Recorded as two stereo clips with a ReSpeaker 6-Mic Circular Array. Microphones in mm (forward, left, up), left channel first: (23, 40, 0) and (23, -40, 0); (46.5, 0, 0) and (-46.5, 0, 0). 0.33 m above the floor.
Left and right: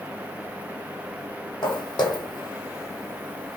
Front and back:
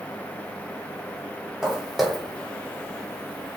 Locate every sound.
1.6 s footsteps: 95° left, 0.9 m; by 3.6 s 5° left, 0.5 m